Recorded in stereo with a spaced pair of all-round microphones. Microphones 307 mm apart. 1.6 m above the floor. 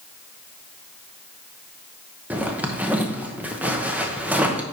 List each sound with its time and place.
2.3 s a zipper: 5° right (ahead or behind), 1.0 m